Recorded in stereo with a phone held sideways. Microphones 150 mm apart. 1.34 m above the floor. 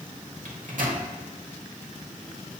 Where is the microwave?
70° right (ahead or behind), 0.8 m.